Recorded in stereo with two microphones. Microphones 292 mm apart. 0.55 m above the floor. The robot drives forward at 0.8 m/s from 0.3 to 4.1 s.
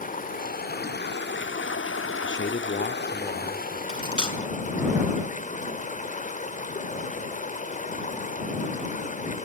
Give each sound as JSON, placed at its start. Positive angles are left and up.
{"t": 0.0, "sound": "running water", "side_deg": 30, "distance_m": 1.9}
{"t": 2.2, "sound": "a man speaking", "side_deg": 40, "distance_m": 0.9}
{"t": 3.9, "sound": "cutlery clinking", "side_deg": -45, "distance_m": 4.0}